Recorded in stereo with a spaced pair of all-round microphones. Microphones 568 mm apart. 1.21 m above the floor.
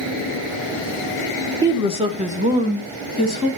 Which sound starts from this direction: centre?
A woman speaking, at 1.6 s.